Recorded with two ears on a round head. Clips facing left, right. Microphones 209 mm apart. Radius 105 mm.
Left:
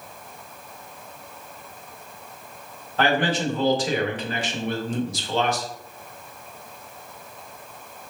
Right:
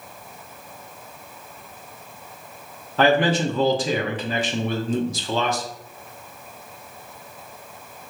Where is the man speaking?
70° right (ahead or behind), 0.8 m.